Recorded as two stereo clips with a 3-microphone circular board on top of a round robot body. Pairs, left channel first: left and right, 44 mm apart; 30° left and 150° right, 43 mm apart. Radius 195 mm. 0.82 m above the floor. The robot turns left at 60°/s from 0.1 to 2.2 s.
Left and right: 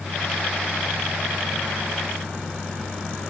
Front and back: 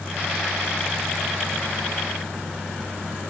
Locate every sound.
Only background noise.